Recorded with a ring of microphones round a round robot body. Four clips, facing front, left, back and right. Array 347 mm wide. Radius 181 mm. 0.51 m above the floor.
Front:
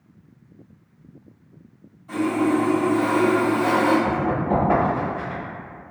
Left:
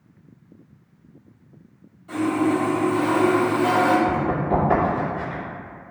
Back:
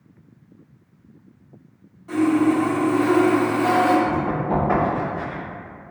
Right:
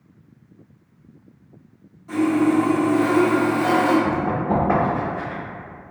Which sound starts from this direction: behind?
Sawing, at 2.1 s.